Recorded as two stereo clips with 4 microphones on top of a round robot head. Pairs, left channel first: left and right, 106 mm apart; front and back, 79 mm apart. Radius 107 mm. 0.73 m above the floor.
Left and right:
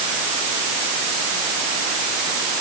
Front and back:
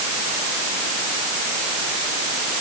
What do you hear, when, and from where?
Only background noise.